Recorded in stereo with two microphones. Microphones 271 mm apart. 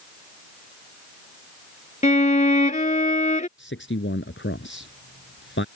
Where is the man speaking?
45° left (ahead or behind).